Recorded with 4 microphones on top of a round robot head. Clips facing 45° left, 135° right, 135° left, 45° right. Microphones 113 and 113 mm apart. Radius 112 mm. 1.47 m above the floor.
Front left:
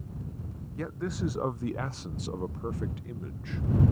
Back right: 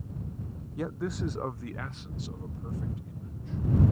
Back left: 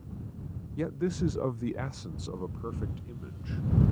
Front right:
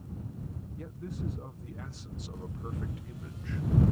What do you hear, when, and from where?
0.8 s a man speaking: 150° left; by 3.7 s 65° left